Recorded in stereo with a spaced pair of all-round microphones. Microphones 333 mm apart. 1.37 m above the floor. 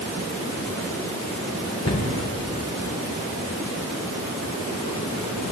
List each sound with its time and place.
1.9 s a cupboard door: 50° left (ahead or behind), 3 m